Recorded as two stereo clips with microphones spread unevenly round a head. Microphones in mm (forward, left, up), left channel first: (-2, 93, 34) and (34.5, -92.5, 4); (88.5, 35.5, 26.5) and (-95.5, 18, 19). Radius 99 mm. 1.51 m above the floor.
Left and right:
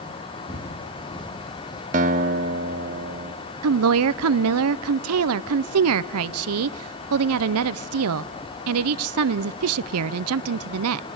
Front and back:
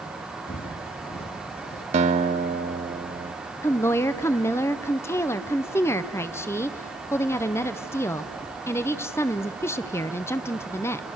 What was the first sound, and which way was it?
Footsteps, 40° left.